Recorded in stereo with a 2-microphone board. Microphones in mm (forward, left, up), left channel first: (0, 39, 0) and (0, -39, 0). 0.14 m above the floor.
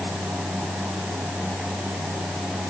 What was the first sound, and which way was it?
Only background noise.